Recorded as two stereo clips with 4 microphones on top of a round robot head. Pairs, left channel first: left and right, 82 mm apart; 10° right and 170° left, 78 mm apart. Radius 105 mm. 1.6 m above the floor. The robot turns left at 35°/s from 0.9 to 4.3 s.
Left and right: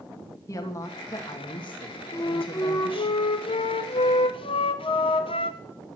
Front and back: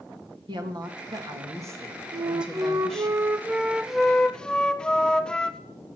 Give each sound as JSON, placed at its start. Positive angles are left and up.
{"t": 0.5, "sound": "a woman speaking", "azimuth_deg": 145, "distance_m": 2.5}
{"t": 2.1, "sound": "a flute", "azimuth_deg": 145, "distance_m": 1.3}